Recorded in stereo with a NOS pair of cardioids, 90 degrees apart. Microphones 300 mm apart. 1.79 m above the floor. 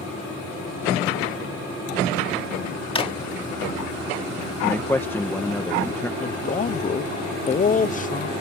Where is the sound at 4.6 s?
10° left.